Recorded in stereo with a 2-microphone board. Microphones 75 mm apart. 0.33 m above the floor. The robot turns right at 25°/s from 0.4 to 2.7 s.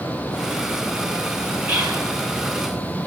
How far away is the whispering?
About 0.9 m.